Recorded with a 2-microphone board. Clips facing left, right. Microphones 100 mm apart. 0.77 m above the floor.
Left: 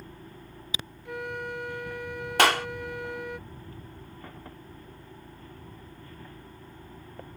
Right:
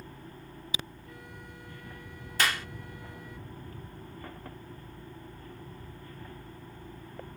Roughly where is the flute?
Left.